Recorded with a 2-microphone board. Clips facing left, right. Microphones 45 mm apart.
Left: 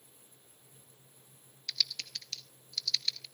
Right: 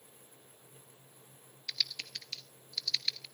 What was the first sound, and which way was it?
Typing on a keyboard, 15° right (ahead or behind).